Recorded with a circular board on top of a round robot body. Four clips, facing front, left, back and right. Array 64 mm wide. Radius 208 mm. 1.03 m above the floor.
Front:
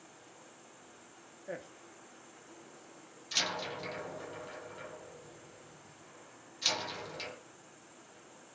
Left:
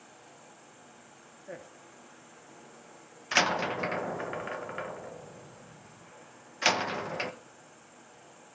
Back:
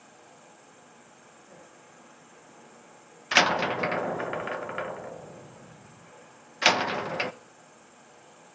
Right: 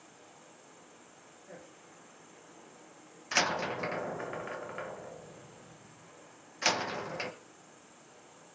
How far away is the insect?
About 7 m.